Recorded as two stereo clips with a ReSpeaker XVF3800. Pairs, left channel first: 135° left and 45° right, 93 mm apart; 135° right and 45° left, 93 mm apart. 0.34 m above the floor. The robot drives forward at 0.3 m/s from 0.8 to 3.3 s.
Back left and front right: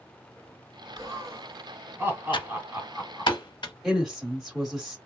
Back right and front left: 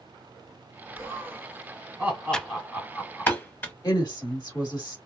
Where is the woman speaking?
130° right, 1.2 m.